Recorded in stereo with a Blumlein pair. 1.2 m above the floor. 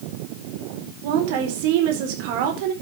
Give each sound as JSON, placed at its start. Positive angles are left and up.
{"t": 1.0, "sound": "a woman speaking", "azimuth_deg": -50, "distance_m": 4.5}